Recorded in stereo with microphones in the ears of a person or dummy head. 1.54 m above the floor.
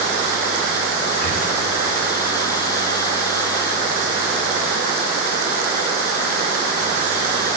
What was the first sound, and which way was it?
Breathing, 30° left (ahead or behind).